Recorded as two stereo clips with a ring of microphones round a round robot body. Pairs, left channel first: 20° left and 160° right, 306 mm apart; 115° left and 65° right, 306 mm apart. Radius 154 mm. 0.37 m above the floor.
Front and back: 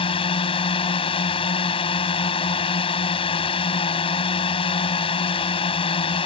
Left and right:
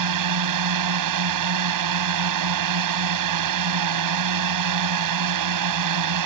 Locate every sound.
0.0 s a drone: 50° right